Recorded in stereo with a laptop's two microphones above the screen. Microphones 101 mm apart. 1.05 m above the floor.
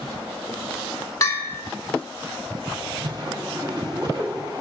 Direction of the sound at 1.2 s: 35° left (ahead or behind).